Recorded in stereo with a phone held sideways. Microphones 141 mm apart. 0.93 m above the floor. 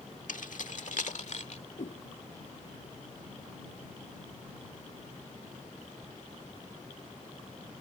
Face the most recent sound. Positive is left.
turn(degrees=70)  # may be behind; listen again after turning